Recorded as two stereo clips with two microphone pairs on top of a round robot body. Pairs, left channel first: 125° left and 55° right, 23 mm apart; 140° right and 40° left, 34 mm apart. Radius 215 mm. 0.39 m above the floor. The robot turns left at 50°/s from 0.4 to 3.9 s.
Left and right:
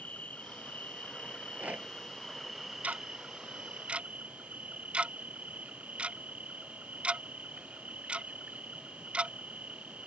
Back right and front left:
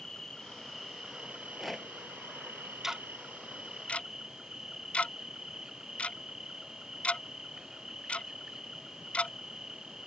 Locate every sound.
0.0 s an insect: 145° left; by 10.1 s 30° right
1.3 s a rattle: 30° right; by 1.9 s 65° right
2.8 s ticking: 40° right; by 10.1 s 90° right